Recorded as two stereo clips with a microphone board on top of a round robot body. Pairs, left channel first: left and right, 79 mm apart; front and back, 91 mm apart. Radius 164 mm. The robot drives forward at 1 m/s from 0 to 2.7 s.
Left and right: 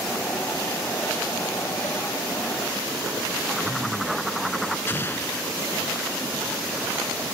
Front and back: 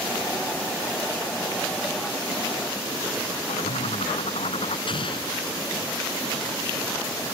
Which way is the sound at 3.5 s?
Straight ahead.